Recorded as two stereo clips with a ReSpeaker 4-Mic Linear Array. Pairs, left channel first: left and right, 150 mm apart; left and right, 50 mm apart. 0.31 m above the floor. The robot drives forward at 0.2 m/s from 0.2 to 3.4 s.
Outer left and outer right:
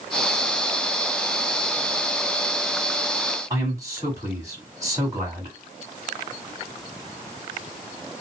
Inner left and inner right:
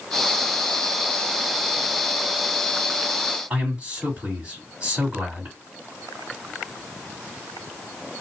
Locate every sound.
3.5 s a man speaking: 20° right (ahead or behind), 1.7 m